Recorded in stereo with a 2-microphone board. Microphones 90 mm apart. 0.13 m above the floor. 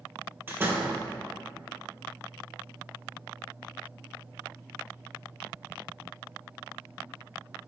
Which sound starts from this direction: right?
A door slam, at 0.5 s.